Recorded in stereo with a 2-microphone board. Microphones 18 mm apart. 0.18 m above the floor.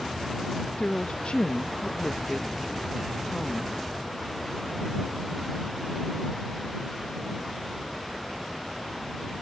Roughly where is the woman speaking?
Left.